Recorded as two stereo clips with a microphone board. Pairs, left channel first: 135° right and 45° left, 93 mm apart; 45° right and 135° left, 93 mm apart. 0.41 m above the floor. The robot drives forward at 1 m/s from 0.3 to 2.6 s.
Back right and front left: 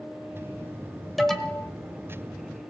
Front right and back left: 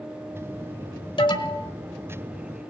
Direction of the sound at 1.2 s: 45° right.